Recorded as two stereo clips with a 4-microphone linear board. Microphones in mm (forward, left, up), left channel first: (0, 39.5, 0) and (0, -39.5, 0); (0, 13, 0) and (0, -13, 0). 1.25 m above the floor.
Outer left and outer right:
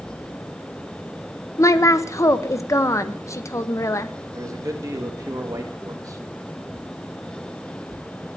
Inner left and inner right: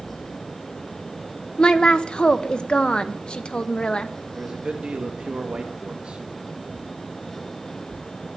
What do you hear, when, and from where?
1.6 s a woman speaking: 40° left (ahead or behind), 0.6 m
4.3 s a man speaking: 45° right (ahead or behind), 1.7 m